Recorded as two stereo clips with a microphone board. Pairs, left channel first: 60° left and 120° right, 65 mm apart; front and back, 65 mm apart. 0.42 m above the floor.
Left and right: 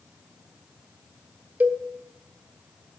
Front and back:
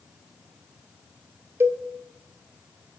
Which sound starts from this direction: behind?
A cowbell, at 1.6 s.